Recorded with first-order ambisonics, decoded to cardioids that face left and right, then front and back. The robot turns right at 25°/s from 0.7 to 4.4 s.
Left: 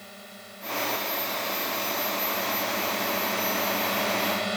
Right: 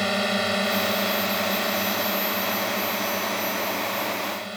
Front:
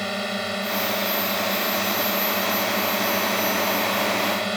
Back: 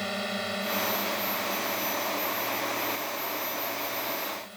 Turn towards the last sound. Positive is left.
turn(degrees=20)